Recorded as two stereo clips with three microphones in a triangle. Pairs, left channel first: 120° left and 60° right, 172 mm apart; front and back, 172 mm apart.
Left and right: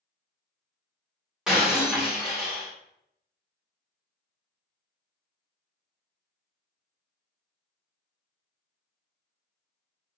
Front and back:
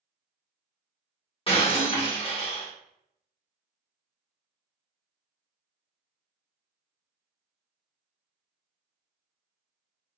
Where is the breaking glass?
20° left, 1.5 m.